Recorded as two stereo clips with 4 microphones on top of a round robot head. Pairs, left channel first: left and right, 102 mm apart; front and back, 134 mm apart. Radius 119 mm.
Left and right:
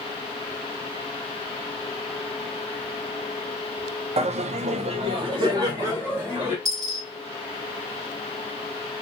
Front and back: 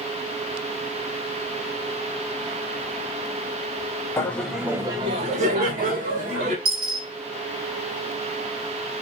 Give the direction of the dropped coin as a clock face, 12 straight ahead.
4 o'clock.